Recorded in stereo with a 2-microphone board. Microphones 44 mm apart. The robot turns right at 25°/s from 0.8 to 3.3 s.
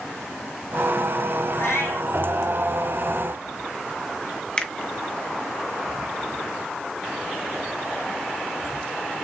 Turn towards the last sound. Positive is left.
turn(degrees=25)  # may be behind; listen again after turning